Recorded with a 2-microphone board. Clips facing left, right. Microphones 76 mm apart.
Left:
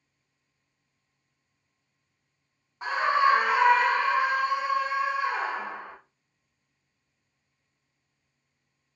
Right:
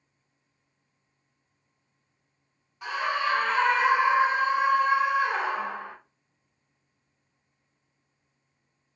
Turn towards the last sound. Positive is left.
turn(degrees=-70)  # may be behind; listen again after turning